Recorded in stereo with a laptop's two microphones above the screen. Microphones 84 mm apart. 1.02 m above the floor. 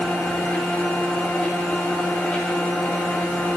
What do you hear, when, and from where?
0.0 s a machine running: 10° left (ahead or behind), 2.5 m